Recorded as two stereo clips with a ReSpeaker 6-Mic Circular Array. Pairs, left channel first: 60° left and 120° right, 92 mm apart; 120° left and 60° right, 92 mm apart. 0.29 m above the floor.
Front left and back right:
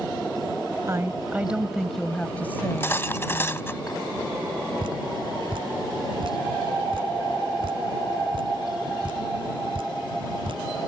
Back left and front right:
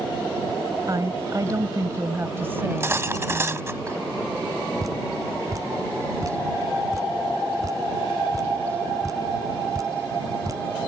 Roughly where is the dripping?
Right.